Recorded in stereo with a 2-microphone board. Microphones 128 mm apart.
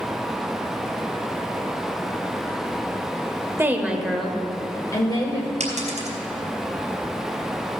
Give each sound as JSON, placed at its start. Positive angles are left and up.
{"t": 3.6, "sound": "a woman speaking", "side_deg": -20, "distance_m": 0.9}
{"t": 5.6, "sound": "a dropped coin", "side_deg": -65, "distance_m": 3.0}